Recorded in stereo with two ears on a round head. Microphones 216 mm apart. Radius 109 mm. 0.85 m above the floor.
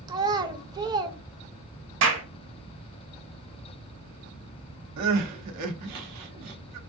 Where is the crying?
75° right (ahead or behind), 0.8 m.